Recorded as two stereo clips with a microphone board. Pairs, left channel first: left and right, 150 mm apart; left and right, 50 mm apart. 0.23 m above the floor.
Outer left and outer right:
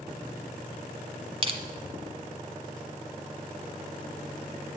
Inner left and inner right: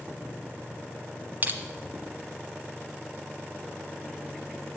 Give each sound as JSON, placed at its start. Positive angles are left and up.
{"t": 1.4, "sound": "crushing", "side_deg": -40, "distance_m": 0.9}